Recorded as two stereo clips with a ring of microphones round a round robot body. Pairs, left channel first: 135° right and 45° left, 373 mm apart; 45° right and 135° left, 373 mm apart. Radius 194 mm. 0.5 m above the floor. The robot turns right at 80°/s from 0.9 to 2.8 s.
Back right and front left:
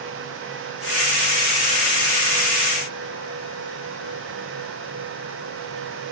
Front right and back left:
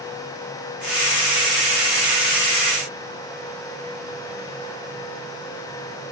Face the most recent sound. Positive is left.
No sound to turn to.